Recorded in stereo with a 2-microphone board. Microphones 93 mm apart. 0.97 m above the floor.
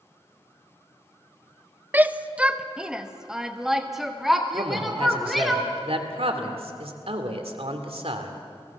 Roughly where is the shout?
Centre.